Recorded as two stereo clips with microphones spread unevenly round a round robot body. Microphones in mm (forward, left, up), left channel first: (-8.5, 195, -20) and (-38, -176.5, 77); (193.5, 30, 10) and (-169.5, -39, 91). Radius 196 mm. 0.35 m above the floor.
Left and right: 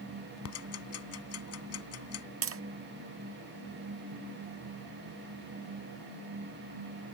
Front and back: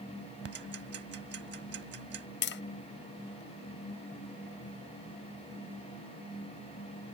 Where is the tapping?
35° right.